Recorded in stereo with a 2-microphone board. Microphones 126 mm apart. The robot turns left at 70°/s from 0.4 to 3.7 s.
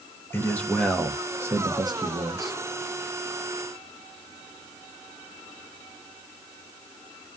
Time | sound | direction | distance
0.3 | a man speaking | 35° left | 0.7 m